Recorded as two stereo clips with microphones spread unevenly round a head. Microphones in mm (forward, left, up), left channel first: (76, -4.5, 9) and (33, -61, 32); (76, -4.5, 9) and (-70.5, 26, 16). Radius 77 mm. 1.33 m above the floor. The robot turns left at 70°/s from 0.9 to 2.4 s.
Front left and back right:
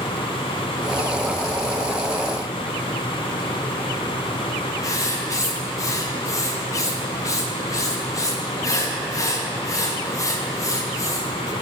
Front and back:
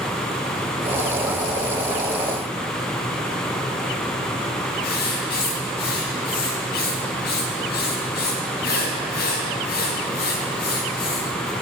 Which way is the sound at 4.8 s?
10° left.